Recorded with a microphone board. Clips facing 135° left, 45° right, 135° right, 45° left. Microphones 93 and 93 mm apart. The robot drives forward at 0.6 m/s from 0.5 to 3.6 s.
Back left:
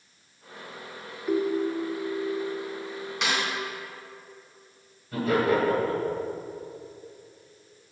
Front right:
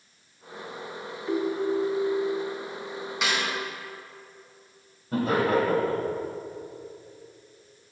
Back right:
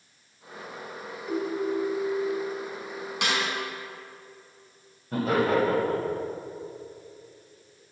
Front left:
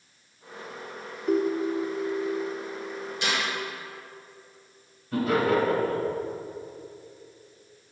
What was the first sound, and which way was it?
A ringtone, 65° left.